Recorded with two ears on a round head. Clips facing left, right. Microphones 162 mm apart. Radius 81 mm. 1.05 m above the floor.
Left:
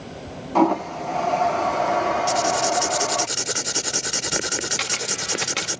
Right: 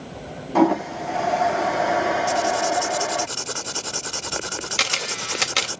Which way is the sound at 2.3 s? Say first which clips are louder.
Even; 20° left (ahead or behind).